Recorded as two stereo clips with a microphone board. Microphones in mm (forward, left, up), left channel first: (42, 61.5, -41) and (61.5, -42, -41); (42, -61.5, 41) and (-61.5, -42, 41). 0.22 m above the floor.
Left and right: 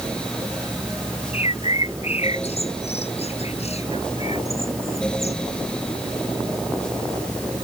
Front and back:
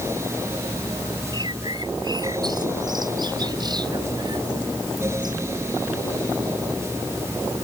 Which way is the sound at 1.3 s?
120° left.